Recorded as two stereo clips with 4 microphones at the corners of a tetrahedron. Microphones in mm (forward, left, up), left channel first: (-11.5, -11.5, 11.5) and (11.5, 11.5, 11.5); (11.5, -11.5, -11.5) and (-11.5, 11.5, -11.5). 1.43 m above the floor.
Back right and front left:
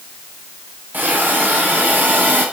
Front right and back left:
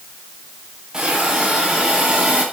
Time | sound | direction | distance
0.9 | a hiss | 65° left | 9.5 m